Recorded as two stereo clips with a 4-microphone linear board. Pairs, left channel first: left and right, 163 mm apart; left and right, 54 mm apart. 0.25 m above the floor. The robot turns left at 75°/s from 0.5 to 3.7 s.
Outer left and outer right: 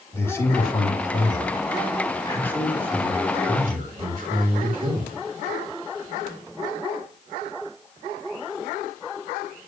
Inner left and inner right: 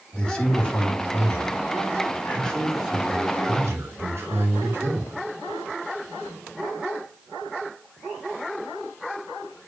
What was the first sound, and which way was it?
A man speaking, 160° left.